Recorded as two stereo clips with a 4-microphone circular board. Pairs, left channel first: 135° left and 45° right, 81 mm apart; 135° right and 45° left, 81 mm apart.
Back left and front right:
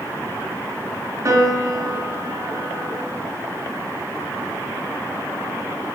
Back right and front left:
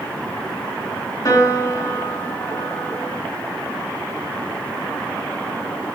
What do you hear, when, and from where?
1.2 s a piano: 95° right, 0.8 m